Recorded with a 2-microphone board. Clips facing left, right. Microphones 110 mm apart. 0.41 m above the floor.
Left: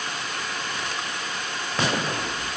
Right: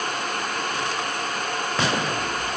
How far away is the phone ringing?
I don't hear a phone ringing.